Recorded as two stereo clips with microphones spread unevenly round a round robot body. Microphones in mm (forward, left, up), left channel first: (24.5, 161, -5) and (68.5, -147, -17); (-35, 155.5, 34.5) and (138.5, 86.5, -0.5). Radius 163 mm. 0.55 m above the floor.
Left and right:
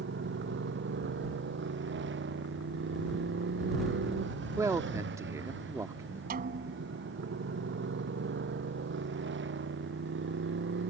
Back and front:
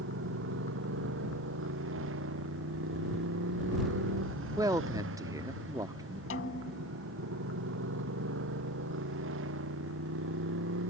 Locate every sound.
0.0 s a motorcycle: 30° right
4.6 s a man speaking: 15° right
6.3 s a snare drum: 145° right